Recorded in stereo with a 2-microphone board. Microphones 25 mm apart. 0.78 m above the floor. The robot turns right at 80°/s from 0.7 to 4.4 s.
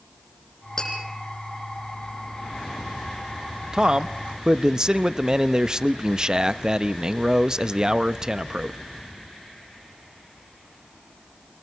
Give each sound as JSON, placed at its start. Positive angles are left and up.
{"t": 0.8, "sound": "tapping", "side_deg": 20, "distance_m": 9.0}
{"t": 3.7, "sound": "a man speaking", "azimuth_deg": -115, "distance_m": 0.6}